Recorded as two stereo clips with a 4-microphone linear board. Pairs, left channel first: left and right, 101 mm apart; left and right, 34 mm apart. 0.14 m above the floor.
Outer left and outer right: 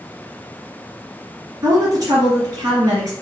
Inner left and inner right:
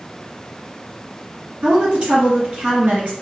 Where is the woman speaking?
40° right (ahead or behind), 2 m.